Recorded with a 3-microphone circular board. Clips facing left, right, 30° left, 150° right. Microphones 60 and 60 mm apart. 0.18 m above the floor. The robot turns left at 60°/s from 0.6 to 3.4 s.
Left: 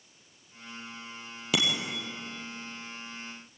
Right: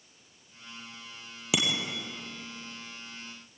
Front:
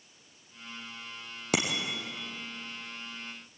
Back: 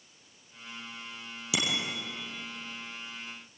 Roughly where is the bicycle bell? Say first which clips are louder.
Even, front 2 dB; ahead.